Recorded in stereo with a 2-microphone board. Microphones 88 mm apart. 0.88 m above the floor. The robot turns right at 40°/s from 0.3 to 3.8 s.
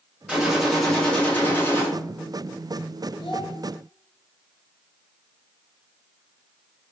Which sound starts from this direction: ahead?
A gunshot, at 0.3 s.